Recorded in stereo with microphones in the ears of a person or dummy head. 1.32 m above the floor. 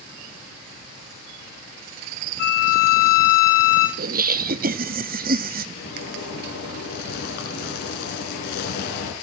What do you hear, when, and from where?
2.4 s a violin: 60° left (ahead or behind), 2.5 m
4.0 s laughter: 40° right (ahead or behind), 0.6 m
5.8 s a zipper: 60° left (ahead or behind), 3.5 m